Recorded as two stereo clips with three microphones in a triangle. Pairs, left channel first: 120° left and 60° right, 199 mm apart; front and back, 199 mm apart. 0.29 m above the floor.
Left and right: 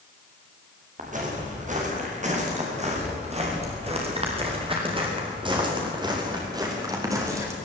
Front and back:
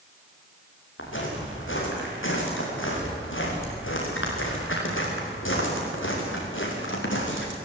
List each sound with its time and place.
1.0 s footsteps: 10° right, 9 m; by 7.5 s 15° left, 7 m